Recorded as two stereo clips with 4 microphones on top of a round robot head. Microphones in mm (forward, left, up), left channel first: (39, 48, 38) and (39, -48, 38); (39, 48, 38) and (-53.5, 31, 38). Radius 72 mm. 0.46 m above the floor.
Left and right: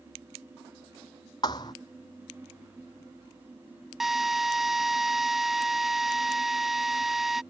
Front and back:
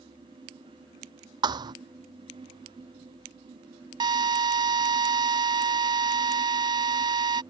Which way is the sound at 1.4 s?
150° left.